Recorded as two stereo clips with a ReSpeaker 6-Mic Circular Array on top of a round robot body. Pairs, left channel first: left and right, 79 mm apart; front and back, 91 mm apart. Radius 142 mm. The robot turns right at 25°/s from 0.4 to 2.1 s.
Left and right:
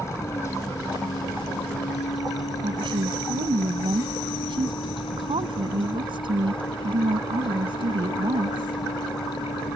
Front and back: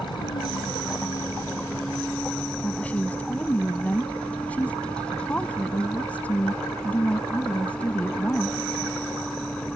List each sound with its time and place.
0.0 s a vehicle: 35° left; by 9.8 s 80° left
2.6 s a woman speaking: 75° right